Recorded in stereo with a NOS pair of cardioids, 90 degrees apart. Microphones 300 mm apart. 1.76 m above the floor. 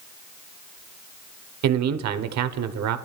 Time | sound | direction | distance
1.6 | a man speaking | 60° right | 1.0 m